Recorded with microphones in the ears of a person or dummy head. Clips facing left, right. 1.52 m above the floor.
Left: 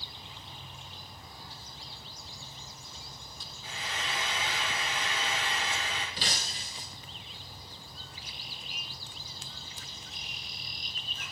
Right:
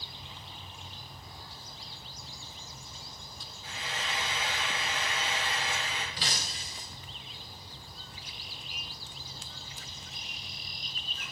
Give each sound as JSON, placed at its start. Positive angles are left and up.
{"t": 3.6, "sound": "frying", "side_deg": 70, "distance_m": 3.5}
{"t": 6.2, "sound": "breaking glass", "side_deg": 30, "distance_m": 1.4}